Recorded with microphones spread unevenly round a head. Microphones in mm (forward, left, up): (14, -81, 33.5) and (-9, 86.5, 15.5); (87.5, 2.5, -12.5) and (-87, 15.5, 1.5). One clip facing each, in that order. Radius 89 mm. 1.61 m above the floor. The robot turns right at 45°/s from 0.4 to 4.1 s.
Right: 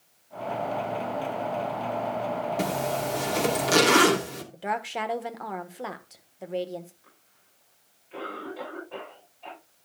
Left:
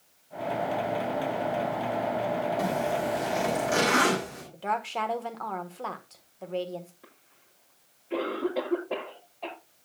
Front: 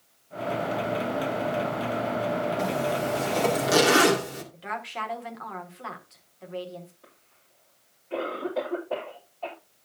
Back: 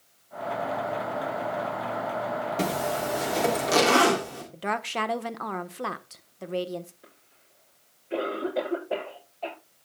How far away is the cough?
About 6.5 m.